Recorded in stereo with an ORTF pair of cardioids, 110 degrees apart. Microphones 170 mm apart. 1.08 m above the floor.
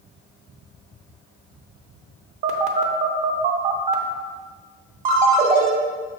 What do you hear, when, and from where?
2.4 s a phone buzzing: 45° right, 0.7 m
5.0 s a ringtone: 45° right, 1.0 m